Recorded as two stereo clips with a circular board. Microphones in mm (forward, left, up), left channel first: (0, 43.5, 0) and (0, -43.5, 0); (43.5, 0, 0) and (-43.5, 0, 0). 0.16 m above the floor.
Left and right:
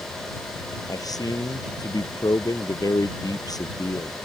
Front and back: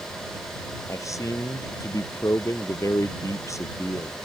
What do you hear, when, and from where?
0.9 s a man speaking: 50° left